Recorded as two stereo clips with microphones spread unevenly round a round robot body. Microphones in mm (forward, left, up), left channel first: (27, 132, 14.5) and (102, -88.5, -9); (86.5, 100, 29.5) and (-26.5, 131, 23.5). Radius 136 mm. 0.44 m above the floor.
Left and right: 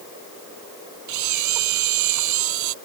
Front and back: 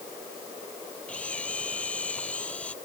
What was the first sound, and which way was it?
A camera shutter, 100° right.